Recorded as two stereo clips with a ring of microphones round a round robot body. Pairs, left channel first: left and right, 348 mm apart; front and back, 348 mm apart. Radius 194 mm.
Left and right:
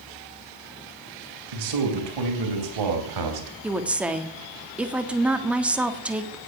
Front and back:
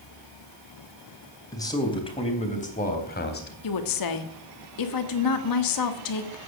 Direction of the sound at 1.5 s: 80° right.